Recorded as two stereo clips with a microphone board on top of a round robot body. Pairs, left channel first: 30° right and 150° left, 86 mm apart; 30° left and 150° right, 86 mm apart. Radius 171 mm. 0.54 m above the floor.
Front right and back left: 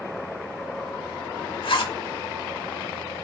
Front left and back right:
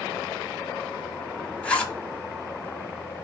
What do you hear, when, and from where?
1.6 s a zipper: 50° right, 1.6 m